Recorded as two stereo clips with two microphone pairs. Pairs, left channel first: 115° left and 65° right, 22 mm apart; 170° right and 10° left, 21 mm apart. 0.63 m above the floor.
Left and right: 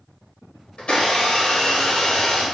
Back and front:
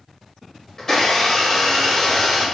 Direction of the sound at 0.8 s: 120° left.